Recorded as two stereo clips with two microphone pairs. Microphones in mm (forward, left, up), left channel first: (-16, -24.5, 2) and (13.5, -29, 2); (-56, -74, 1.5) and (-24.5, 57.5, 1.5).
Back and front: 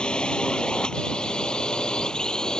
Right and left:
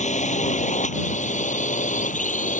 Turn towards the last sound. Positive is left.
turn(degrees=-125)